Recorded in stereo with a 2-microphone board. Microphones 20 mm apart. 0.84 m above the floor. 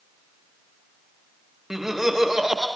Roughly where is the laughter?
Centre.